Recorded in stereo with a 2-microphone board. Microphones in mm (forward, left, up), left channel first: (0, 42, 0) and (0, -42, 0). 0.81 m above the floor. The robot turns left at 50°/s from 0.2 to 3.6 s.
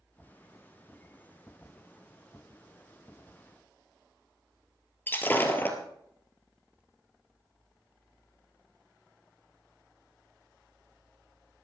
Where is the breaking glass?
25° left (ahead or behind), 2 m.